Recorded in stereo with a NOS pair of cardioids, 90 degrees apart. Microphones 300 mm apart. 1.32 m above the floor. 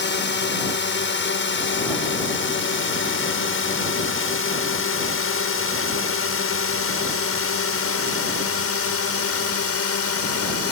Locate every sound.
0.0 s a drone: 40° left; by 10.7 s 50° left